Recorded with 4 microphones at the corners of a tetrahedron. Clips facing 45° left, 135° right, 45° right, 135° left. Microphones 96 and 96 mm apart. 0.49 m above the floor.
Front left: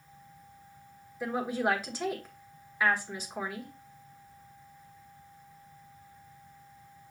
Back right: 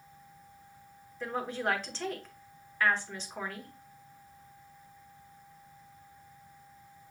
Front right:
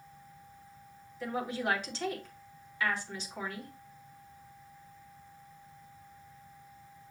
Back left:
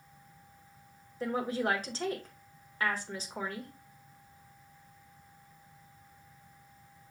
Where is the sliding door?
I don't hear a sliding door.